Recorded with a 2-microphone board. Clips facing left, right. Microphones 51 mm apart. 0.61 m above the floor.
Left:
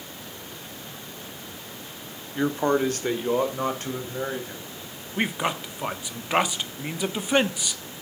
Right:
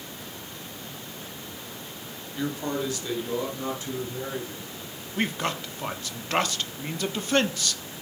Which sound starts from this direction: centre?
A man speaking, at 5.2 s.